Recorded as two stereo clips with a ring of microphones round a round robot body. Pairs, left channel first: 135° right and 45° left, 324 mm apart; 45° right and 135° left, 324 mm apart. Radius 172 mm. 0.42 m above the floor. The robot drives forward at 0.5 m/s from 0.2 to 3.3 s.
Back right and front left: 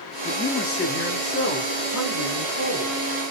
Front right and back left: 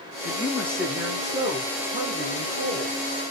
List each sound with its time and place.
0.2 s a man speaking: 90° right, 0.7 m; by 3.0 s 170° right, 1.5 m